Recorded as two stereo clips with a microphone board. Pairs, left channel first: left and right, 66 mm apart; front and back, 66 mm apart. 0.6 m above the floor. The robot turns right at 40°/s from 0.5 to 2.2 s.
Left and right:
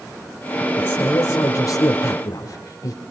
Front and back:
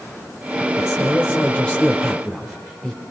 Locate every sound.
0.8 s a man speaking: 40° left, 2.0 m; by 3.0 s 95° left, 2.0 m